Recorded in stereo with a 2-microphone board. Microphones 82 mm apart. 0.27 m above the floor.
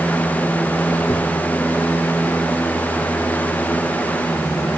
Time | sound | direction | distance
1.1 | tapping | 60° left (ahead or behind) | 4.5 m